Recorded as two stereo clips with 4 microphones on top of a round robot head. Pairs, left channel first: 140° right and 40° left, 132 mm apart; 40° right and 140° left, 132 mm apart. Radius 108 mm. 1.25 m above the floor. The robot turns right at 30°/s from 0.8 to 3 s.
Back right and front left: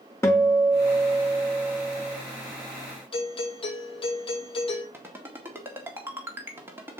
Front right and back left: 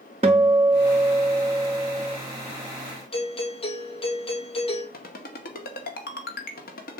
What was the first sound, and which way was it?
A guitar, 160° left.